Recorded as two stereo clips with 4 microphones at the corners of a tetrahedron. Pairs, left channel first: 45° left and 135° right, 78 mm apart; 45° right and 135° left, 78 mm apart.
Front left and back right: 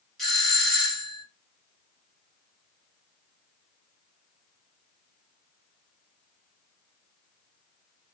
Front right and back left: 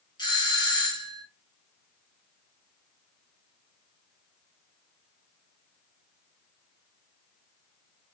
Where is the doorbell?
45° right, 1.6 m.